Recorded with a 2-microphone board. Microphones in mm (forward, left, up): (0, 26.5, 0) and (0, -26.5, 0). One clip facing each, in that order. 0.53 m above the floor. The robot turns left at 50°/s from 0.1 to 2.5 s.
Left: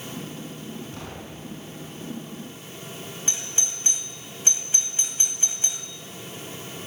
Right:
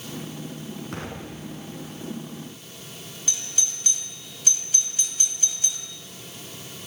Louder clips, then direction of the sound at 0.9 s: Right 3 dB; 65° right (ahead or behind).